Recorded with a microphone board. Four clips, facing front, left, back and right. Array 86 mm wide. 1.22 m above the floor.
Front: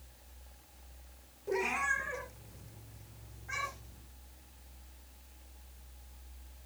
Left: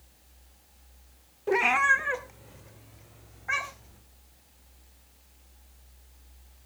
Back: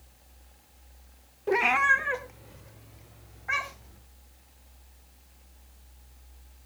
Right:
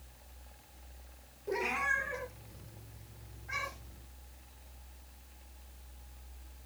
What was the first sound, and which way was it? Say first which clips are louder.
A cat meowing: left 10 dB, back 10 dB; 135° left.